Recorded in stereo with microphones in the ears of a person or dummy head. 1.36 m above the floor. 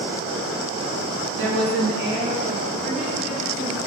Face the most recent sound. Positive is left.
turn(degrees=5)  # may be behind; listen again after turning